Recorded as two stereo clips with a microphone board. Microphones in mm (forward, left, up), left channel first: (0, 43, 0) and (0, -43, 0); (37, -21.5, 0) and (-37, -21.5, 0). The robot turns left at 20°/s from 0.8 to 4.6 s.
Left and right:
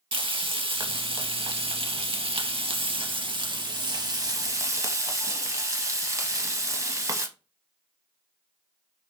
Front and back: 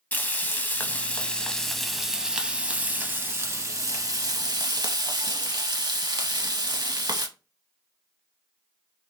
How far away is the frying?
About 0.5 m.